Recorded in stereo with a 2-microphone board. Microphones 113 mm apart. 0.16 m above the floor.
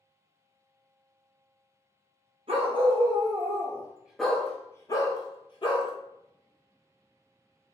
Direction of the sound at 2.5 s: 60° right (ahead or behind).